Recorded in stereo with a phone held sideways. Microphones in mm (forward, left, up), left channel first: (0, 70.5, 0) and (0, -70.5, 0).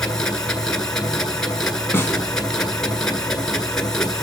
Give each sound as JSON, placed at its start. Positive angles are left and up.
{"t": 0.0, "sound": "a machine running", "side_deg": 5, "distance_m": 1.7}
{"t": 1.9, "sound": "a snare drum", "side_deg": 15, "distance_m": 2.5}